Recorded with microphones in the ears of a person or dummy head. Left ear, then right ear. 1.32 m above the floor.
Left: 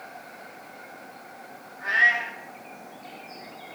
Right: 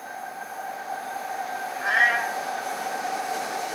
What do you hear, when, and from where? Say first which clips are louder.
1.8 s a cat meowing: even; 55° right (ahead or behind), 3 m